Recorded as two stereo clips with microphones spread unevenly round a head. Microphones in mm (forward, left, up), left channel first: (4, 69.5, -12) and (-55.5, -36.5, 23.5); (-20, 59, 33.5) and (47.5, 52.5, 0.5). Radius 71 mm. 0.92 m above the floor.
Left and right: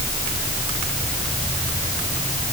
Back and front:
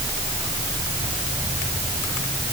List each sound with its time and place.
Only background noise.